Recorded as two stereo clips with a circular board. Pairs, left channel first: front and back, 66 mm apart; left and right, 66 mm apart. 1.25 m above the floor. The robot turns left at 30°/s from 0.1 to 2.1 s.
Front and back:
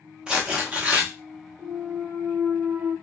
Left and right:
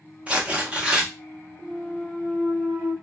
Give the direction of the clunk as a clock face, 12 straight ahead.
6 o'clock.